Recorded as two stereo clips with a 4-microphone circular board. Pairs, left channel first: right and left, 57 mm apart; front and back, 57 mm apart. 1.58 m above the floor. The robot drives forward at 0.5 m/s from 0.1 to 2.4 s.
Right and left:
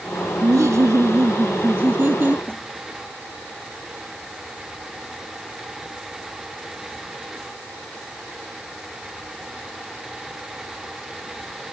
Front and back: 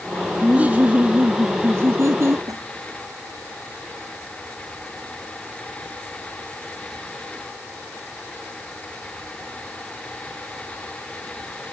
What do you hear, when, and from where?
0.4 s laughter: 110° left; by 2.4 s 145° left
2.5 s a snare drum: 165° right